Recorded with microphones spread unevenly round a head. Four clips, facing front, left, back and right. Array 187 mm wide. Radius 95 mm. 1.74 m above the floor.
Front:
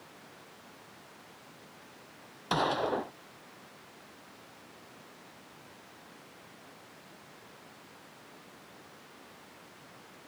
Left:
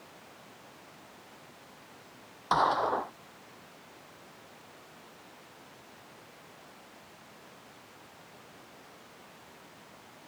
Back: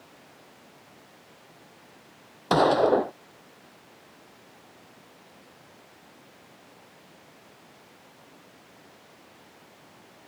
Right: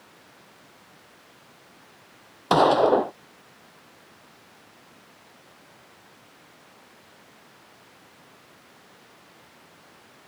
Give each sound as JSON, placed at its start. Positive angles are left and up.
{"t": 2.5, "sound": "a gunshot", "azimuth_deg": -130}